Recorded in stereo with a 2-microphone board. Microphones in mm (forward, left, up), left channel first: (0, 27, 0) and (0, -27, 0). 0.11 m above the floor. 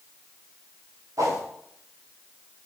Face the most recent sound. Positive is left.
turn(degrees=-75)  # may be behind; listen again after turning